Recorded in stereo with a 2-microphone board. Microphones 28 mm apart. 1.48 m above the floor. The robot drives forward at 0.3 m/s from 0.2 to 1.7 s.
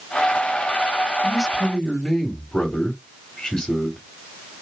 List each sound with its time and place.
1.2 s a man speaking: 30° left (ahead or behind), 3.5 m